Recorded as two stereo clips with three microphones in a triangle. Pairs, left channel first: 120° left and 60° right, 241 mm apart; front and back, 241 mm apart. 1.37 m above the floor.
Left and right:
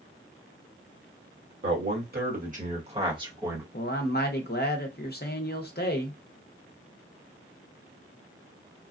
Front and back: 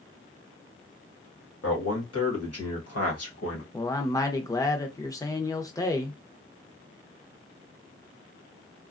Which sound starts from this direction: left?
A man speaking, at 3.7 s.